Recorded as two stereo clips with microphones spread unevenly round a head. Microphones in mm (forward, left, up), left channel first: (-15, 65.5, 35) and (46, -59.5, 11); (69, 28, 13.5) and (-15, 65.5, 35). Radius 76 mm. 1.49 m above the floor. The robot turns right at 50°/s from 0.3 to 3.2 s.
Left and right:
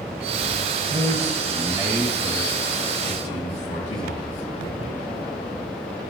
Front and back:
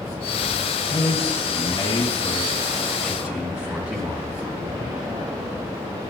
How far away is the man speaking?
About 1.5 m.